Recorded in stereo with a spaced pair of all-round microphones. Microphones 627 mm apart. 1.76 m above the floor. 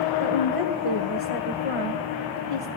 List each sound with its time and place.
0.2 s a woman speaking: 55° left (ahead or behind), 1.4 m